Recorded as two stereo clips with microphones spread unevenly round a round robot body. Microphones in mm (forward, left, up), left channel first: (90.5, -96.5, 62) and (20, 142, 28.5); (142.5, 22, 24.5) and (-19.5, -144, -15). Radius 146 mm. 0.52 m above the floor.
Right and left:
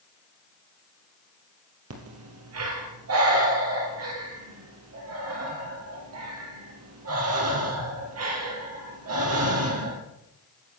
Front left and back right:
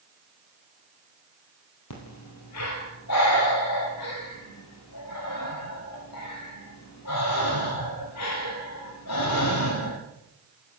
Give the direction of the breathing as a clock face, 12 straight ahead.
9 o'clock.